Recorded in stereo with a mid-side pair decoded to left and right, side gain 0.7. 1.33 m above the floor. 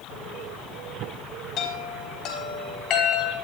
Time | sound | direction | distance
1.6 | a chime | 50° left | 3.5 m